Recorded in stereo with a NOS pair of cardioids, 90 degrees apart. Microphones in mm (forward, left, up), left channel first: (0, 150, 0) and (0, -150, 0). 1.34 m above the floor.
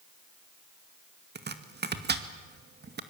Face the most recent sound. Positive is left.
turn(degrees=-35)